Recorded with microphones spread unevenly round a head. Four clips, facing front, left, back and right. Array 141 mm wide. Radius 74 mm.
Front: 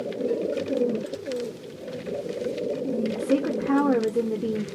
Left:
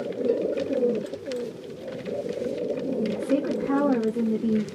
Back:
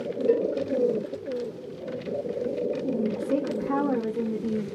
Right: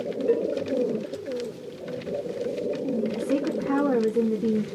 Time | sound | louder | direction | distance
0.3 | a cowbell | right 2 dB, back 6 dB | 130° right | 0.6 m
3.1 | a woman speaking | left 1 dB, front 3 dB | 25° right | 1.5 m